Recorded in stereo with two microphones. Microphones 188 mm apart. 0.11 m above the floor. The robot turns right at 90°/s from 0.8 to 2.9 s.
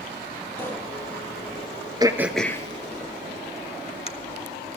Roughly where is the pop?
Centre.